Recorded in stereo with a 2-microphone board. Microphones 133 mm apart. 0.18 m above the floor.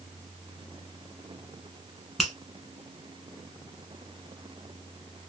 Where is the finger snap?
Centre (ahead or behind), 1.6 m.